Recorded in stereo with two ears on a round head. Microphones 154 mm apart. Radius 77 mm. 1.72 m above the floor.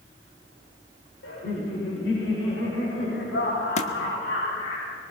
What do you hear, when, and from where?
1.2 s laughter: 75° left (ahead or behind), 5.5 m; by 4.8 s 85° left, 8 m
3.8 s a thud: 40° left (ahead or behind), 1.5 m